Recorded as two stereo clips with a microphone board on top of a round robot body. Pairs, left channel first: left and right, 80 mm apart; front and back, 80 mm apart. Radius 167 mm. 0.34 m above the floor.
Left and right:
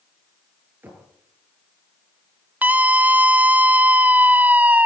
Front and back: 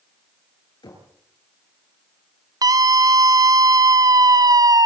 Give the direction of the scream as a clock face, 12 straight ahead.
5 o'clock.